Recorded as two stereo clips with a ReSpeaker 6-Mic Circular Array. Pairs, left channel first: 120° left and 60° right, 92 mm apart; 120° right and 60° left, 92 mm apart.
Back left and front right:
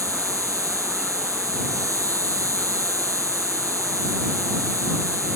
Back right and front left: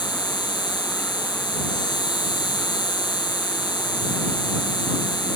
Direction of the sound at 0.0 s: 105° right.